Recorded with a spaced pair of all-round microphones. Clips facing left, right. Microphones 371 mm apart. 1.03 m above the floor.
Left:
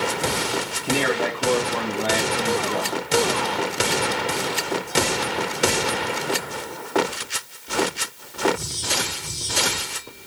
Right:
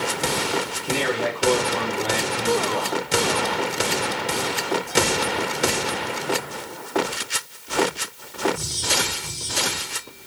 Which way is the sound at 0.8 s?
65° left (ahead or behind).